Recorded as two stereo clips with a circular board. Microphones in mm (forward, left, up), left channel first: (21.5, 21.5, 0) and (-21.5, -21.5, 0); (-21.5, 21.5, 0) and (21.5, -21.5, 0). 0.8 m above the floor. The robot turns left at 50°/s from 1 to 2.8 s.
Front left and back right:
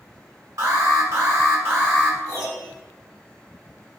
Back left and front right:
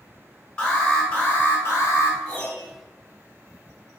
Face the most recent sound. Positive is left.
turn(degrees=170)